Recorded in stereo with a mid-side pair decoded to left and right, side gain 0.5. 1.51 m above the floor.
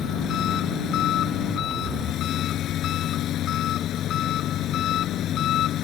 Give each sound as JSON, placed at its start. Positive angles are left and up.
{"t": 0.0, "sound": "an engine running", "azimuth_deg": 65}